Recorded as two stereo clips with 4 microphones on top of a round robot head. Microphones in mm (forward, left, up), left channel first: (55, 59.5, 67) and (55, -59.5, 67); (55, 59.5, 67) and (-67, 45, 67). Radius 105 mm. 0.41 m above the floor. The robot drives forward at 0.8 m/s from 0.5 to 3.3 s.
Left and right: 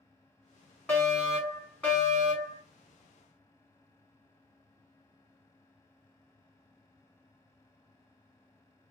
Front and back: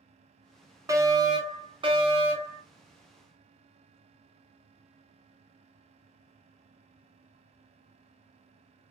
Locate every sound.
0.9 s a fire alarm: 160° left, 1.8 m; by 2.6 s 170° left, 2.5 m